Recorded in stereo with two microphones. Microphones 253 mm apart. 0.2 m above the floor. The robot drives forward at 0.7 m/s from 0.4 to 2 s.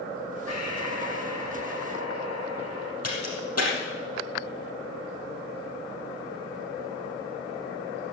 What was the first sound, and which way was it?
Breathing, 80° left.